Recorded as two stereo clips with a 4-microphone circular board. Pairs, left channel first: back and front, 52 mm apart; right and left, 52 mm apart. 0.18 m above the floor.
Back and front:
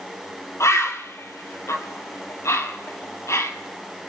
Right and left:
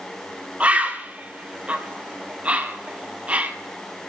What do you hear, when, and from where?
0.6 s a bird: 155° left, 1.2 m